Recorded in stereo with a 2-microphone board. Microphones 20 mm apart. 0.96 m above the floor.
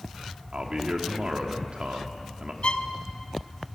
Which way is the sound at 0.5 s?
55° right (ahead or behind).